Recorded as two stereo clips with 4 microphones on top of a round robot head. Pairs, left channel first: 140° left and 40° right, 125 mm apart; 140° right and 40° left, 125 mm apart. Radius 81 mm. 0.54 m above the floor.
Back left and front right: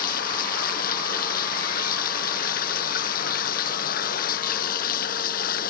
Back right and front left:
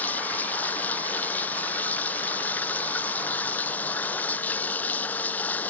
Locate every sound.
0.0 s running water: 140° left